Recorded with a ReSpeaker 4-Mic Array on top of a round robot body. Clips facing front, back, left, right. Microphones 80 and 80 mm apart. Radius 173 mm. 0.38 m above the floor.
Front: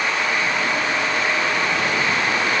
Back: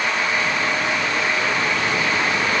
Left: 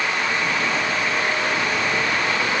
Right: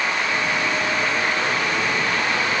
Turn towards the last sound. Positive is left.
No sound to turn to.